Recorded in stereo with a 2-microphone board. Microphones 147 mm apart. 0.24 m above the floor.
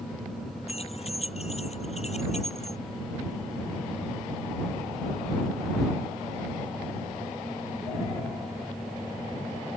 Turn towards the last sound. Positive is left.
turn(degrees=50)  # may be behind; listen again after turning